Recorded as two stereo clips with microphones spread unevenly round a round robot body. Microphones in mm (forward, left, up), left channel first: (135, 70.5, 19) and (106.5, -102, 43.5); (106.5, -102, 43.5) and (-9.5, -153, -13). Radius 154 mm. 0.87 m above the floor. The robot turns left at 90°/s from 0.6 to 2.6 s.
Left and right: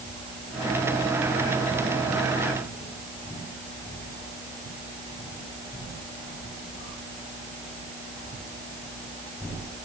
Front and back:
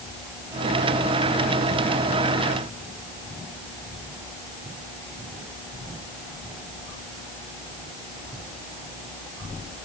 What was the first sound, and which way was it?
Only background noise.